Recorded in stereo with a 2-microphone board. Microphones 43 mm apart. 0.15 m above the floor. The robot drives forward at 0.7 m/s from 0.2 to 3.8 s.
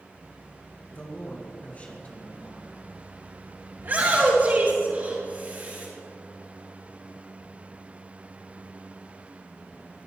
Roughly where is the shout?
Right.